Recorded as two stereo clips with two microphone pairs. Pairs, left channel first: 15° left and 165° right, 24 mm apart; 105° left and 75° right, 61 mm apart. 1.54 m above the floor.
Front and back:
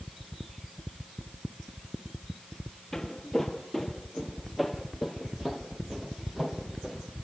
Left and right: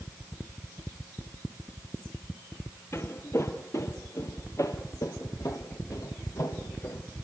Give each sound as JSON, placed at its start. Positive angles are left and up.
{"t": 2.9, "sound": "footsteps", "azimuth_deg": 85, "distance_m": 2.0}